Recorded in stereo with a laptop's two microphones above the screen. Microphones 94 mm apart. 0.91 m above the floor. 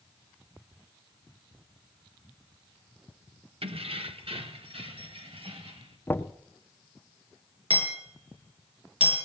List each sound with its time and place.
3.6 s keys jangling: 85° right, 1.1 m; by 6.0 s 80° right, 3.5 m
6.1 s knocking: 20° left (ahead or behind), 1.2 m
7.7 s hammering: 85° right, 7 m